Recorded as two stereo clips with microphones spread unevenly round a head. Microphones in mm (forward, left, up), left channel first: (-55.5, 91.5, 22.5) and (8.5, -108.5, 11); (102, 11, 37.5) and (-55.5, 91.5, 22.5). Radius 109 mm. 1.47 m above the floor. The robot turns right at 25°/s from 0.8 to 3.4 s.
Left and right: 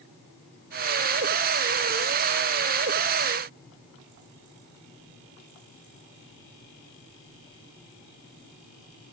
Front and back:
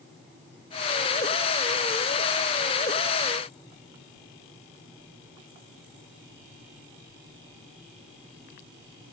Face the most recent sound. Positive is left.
No sound to turn to.